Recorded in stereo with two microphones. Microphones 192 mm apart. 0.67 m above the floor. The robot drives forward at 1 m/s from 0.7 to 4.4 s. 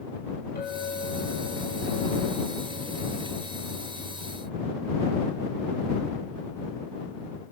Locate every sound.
0.6 s a clink: 55° left (ahead or behind), 9.5 m; by 4.1 s 40° left (ahead or behind), 11.5 m